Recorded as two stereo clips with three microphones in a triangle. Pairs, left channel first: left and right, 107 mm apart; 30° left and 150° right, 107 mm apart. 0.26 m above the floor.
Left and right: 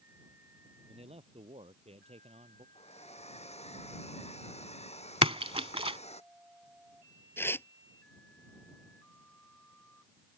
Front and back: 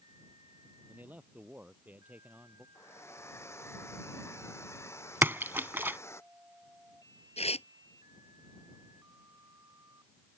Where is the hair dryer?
95° left.